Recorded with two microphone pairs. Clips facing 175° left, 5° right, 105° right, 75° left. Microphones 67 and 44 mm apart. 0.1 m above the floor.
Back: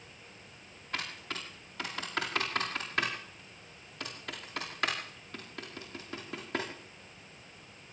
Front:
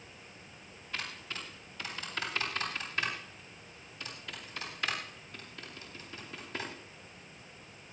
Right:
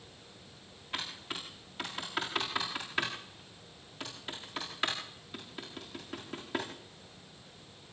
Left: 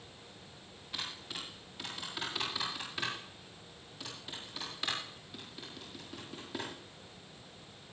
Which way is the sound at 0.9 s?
155° right.